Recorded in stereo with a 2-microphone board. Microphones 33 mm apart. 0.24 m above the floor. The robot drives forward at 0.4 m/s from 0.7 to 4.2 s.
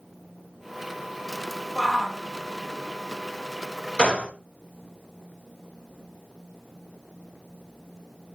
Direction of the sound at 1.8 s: 10° right (ahead or behind).